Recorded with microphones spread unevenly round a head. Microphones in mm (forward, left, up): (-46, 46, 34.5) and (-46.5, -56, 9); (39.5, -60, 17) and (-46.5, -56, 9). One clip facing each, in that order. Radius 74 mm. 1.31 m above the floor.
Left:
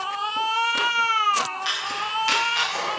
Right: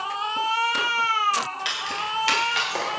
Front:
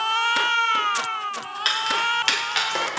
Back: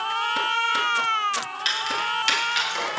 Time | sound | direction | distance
1.6 | keys jangling | 40° right | 4.5 m